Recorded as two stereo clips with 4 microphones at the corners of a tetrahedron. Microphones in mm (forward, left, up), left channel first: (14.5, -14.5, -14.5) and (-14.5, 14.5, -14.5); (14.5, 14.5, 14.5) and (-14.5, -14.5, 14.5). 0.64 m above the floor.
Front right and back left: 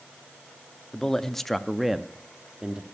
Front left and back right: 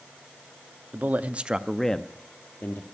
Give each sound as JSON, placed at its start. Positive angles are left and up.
{"t": 0.9, "sound": "a man speaking", "azimuth_deg": -115, "distance_m": 0.8}